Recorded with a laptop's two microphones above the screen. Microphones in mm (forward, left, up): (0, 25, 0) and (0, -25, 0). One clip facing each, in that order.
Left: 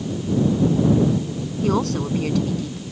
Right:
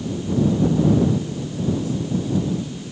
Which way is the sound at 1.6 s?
85° left.